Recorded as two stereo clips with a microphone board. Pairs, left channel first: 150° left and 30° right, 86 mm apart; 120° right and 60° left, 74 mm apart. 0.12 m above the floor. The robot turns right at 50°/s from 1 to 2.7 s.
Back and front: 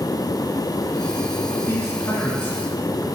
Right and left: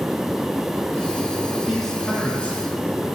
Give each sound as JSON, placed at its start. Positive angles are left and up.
{"t": 1.7, "sound": "a man speaking", "azimuth_deg": 150, "distance_m": 1.3}